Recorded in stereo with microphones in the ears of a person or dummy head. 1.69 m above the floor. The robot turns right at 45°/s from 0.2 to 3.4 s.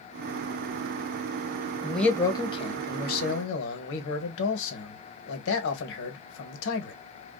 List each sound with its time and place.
1.8 s a man speaking: straight ahead, 0.9 m; by 6.9 s 75° left, 0.9 m